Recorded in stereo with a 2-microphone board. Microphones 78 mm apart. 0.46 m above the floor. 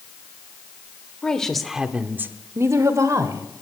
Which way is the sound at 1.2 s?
10° left (ahead or behind).